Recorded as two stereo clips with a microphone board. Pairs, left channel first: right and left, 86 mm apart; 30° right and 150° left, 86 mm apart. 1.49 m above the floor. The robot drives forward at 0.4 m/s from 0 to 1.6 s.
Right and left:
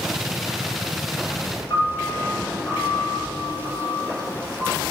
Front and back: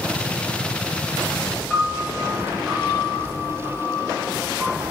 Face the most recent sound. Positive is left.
turn(degrees=-125)